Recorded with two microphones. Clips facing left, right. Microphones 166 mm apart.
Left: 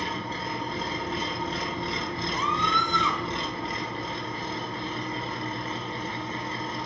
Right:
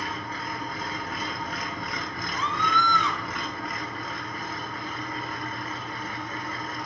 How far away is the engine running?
About 0.8 m.